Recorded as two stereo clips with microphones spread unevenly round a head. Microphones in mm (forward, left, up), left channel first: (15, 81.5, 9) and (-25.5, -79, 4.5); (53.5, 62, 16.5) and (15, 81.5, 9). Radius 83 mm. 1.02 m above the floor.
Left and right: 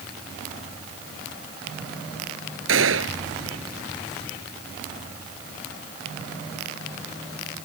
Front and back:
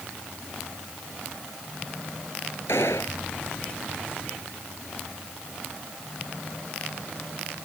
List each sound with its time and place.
2.7 s a gunshot: 90° right